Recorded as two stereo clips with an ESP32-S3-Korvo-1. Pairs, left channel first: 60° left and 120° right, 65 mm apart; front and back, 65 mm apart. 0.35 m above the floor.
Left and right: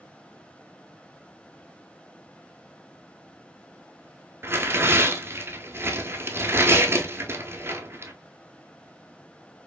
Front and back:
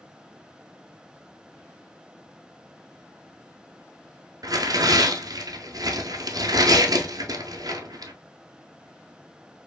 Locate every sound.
4.4 s tearing paper: 170° right, 0.9 m